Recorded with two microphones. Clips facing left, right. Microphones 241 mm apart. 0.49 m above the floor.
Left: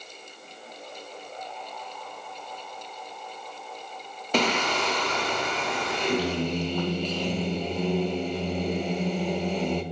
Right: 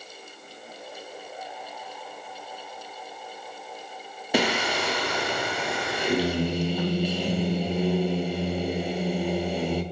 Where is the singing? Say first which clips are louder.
Right 1 dB; 10° right (ahead or behind), 0.5 m.